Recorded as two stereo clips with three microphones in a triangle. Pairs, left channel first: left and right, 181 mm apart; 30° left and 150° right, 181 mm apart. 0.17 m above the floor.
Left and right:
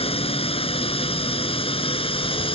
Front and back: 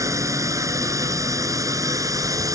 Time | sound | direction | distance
0.0 | a drone | 140° left | ?